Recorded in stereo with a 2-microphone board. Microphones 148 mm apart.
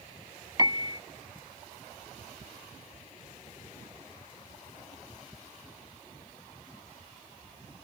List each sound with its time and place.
0.6 s a piano: 30° right (ahead or behind)